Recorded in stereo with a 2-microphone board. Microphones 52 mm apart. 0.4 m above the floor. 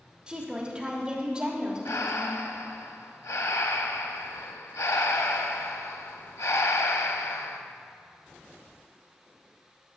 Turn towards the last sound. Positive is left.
turn(degrees=85)